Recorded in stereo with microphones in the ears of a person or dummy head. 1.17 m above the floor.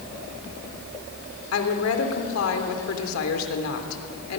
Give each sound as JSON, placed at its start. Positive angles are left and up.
{"t": 1.5, "sound": "a woman speaking", "side_deg": 80, "distance_m": 3.0}